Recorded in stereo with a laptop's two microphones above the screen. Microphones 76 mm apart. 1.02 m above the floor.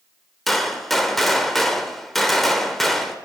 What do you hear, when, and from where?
0.5 s a gunshot: centre (ahead or behind), 1.4 m